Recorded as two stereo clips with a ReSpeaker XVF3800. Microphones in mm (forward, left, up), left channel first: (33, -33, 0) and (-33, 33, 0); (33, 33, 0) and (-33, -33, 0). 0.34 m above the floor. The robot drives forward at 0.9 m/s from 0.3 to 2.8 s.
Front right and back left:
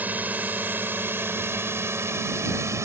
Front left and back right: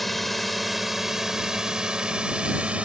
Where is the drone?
130° left; by 2.9 s 160° left.